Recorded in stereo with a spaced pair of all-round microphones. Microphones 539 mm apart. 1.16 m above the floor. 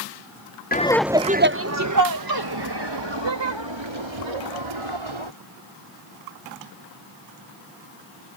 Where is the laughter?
15° left (ahead or behind); by 5.3 s 60° right (ahead or behind).